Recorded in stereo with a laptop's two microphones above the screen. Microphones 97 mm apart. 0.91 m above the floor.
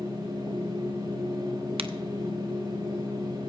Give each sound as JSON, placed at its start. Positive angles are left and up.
{"t": 0.0, "sound": "a machine running", "side_deg": -45, "distance_m": 4.5}
{"t": 1.8, "sound": "a crack", "side_deg": -75, "distance_m": 0.6}